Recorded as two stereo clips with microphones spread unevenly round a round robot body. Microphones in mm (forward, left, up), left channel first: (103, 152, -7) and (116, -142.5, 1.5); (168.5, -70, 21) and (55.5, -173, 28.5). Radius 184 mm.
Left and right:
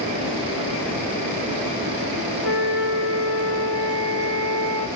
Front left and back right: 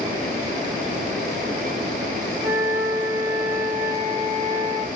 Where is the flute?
80° right, 1.1 m.